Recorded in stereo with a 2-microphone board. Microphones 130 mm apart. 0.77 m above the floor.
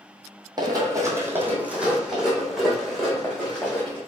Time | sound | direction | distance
0.6 | running footsteps | 35° right (ahead or behind) | 1.2 m